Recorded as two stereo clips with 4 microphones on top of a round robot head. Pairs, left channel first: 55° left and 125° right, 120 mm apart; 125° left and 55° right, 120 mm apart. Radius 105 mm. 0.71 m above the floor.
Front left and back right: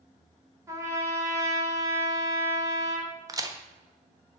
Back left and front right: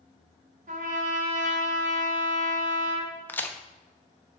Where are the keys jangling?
No keys jangling in this recording.